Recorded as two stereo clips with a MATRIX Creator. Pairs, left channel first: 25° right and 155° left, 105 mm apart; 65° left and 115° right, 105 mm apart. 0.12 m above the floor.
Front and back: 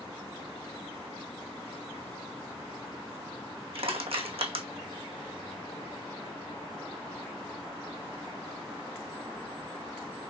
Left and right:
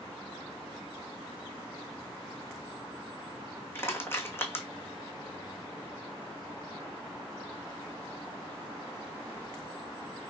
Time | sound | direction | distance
3.8 | crushing | 135° left | 2.5 m